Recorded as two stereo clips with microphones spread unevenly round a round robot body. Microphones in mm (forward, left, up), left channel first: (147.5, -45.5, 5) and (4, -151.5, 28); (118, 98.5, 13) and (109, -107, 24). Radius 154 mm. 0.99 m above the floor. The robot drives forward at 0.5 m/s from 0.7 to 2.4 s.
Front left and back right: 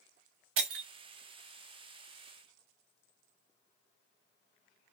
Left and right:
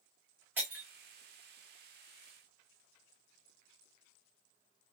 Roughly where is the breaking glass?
Behind.